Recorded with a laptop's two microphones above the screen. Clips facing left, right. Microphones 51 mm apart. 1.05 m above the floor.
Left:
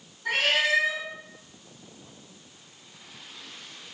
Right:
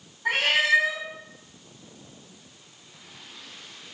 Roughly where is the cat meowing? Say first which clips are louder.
Right 2 dB; right.